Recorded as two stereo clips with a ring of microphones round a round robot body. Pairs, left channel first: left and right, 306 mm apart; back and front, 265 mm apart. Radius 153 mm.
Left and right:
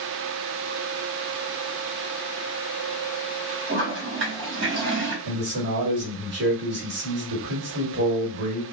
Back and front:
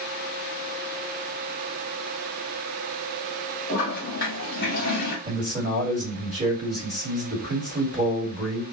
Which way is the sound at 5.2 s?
55° right.